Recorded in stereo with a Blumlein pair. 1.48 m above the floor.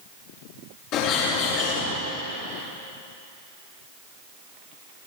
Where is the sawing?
No sawing in this recording.